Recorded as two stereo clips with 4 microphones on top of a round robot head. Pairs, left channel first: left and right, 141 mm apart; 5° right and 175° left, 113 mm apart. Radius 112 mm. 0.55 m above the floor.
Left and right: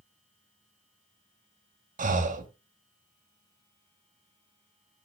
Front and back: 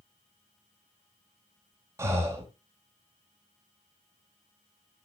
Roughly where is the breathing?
Behind right.